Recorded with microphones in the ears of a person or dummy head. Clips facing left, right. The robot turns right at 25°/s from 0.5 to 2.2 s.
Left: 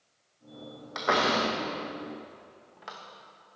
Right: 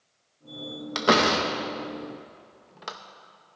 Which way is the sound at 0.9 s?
40° right (ahead or behind).